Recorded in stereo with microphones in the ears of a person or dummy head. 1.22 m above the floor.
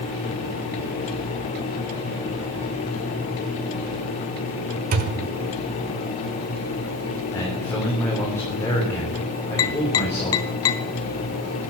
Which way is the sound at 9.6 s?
20° left (ahead or behind).